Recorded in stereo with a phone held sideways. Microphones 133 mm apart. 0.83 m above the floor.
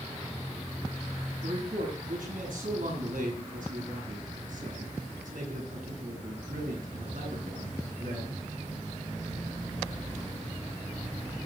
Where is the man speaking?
85° right, 9 m.